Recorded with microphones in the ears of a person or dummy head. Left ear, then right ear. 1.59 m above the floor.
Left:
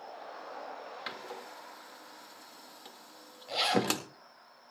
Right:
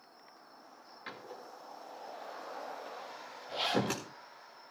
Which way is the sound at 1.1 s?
35° left (ahead or behind).